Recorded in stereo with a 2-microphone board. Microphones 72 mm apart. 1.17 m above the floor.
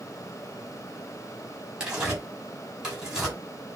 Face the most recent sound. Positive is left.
turn(degrees=-10)  # may be behind; listen again after turning